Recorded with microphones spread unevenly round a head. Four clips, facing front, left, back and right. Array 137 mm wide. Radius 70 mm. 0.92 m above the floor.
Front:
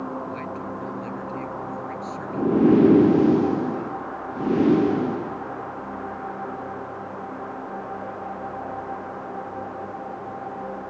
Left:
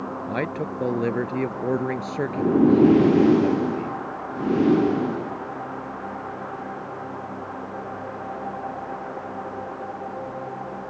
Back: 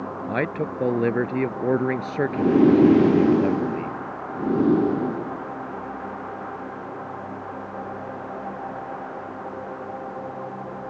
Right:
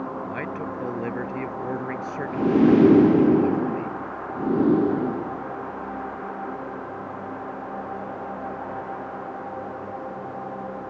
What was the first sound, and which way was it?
A man speaking, 155° left.